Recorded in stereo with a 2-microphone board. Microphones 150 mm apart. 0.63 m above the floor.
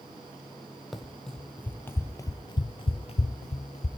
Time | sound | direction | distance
0.9 | running footsteps | centre (ahead or behind) | 1.2 m